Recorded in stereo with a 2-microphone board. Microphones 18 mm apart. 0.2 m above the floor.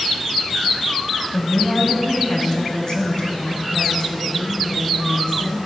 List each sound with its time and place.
1.3 s a woman speaking: 20° left (ahead or behind), 1.0 m; by 5.6 s 45° left (ahead or behind), 2.5 m